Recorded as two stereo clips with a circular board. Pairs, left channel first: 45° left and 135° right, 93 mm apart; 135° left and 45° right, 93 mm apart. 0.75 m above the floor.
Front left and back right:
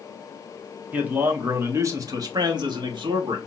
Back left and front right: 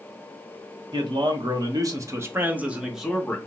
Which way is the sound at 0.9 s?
65° right.